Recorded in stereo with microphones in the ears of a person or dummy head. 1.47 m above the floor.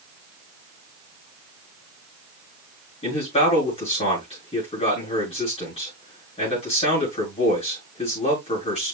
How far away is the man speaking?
About 7.5 m.